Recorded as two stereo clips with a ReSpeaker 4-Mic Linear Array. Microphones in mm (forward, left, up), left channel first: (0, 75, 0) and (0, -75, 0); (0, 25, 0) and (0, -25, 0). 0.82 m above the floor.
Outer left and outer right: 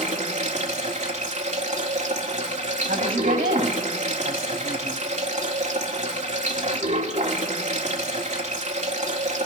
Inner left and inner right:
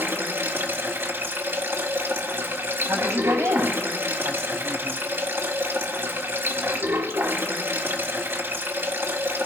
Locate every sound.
0.0 s running water: 50° right (ahead or behind), 1.7 m
2.9 s a woman speaking: 70° right (ahead or behind), 6 m